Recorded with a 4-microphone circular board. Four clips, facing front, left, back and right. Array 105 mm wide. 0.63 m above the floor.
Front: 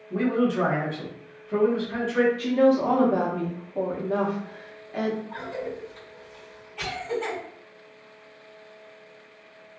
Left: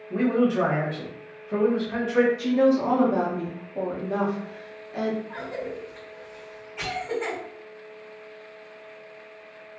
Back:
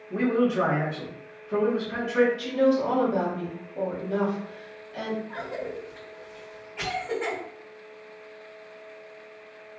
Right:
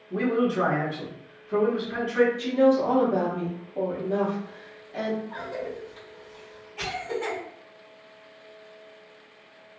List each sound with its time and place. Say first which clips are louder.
0.1 s a man speaking: left 2 dB, even; 110° left, 1.3 m
2.4 s a woman speaking: even, front 3 dB; 20° left, 0.8 m
5.3 s a cough: left 1 dB, even; 140° left, 1.6 m